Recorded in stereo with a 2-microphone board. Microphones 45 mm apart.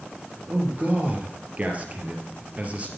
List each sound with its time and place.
0.5 s a man speaking: 35° right (ahead or behind), 3 m